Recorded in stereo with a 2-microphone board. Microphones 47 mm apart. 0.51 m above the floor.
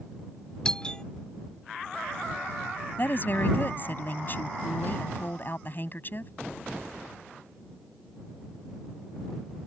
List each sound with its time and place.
0.7 s a doorbell: 20° left (ahead or behind)
3.0 s a woman speaking: 40° left (ahead or behind)